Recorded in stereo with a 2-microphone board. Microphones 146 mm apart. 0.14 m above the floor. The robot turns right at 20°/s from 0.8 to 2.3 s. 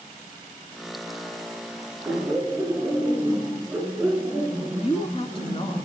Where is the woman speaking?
40° left (ahead or behind), 1.8 m.